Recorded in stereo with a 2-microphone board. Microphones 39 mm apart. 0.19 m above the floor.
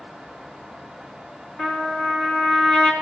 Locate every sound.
1.6 s a trumpet: 25° left (ahead or behind), 3.5 m